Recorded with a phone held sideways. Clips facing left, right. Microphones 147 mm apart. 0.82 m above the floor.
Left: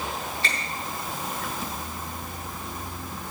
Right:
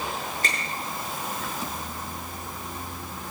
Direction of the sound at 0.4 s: 45° right (ahead or behind).